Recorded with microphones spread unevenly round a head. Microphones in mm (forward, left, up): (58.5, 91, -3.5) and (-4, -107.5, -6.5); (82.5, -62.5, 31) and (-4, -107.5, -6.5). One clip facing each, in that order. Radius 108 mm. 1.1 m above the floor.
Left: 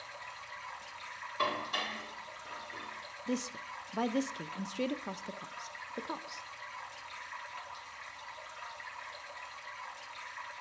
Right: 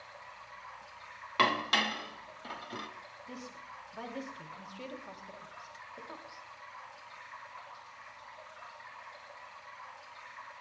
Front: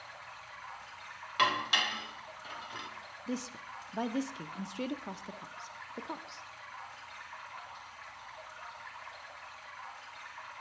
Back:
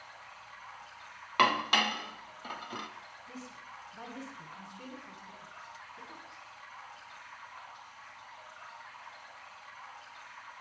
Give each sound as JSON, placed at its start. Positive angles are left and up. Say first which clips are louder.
{"t": 0.0, "sound": "running water", "louder": "left 2 dB, front 2 dB", "azimuth_deg": 120, "distance_m": 3.5}
{"t": 1.4, "sound": "dishes clattering", "louder": "right 5 dB, back 3 dB", "azimuth_deg": -120, "distance_m": 1.0}
{"t": 3.3, "sound": "a woman speaking", "louder": "left 12 dB, front 11 dB", "azimuth_deg": 50, "distance_m": 0.8}